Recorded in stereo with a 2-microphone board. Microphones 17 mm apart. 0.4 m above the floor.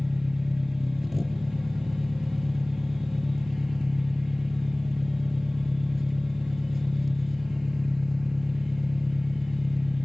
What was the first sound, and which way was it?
An engine running, 15° right (ahead or behind).